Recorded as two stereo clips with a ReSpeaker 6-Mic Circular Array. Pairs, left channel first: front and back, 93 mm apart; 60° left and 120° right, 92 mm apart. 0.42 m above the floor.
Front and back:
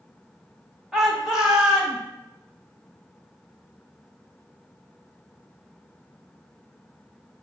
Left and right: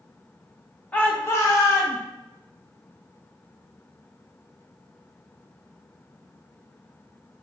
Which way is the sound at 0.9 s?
105° left.